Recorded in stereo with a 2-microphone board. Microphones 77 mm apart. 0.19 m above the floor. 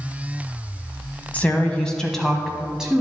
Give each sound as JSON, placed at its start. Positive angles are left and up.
{"t": 1.3, "sound": "a woman speaking", "side_deg": 20, "distance_m": 1.1}